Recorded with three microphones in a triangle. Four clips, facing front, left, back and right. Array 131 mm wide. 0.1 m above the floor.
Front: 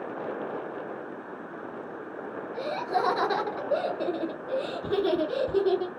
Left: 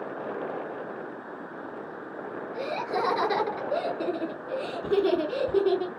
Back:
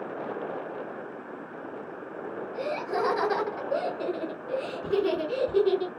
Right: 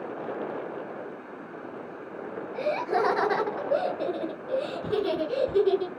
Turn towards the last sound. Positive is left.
turn(degrees=50)